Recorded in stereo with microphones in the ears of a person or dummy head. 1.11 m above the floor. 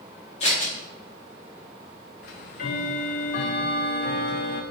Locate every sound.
0.4 s scissors: 35° left (ahead or behind), 2 m
2.2 s ticking: 50° left (ahead or behind), 0.7 m